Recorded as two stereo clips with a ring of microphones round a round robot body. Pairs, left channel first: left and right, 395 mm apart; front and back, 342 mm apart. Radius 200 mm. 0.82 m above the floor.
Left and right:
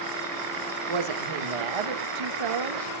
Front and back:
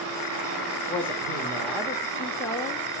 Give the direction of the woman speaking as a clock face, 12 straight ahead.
3 o'clock.